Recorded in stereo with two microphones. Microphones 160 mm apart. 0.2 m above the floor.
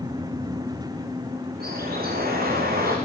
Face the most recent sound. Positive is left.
turn(degrees=-70)  # may be behind; listen again after turning